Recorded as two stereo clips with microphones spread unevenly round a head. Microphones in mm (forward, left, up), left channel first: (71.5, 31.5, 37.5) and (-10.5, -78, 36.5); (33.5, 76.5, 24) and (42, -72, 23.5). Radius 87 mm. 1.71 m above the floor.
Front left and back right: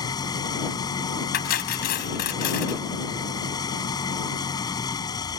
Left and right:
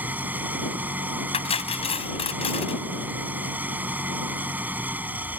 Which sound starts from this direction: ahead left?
Cutlery clinking, at 1.3 s.